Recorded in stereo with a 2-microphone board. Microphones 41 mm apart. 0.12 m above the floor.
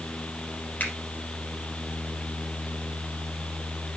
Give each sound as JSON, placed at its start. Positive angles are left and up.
{"t": 0.8, "sound": "a finger snap", "side_deg": 45, "distance_m": 3.0}